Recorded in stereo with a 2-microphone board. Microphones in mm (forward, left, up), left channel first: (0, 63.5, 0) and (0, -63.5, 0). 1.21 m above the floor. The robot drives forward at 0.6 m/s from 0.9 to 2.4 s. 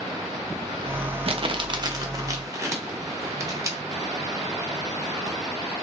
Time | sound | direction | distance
1.3 | crumpling | 50° right (ahead or behind) | 0.6 m